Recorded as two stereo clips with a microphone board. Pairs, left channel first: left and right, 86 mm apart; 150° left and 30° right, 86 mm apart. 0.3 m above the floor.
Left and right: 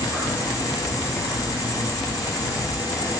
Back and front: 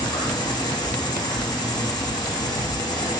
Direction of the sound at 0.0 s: 125° left.